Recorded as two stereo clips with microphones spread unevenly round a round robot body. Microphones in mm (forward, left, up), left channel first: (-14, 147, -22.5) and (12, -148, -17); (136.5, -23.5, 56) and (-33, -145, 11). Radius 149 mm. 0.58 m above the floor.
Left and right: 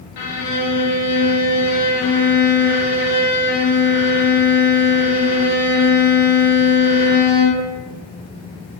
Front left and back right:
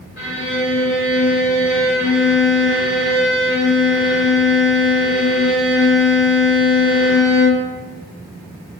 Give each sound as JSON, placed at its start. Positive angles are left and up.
{"t": 0.2, "sound": "a violin", "azimuth_deg": 90, "distance_m": 0.6}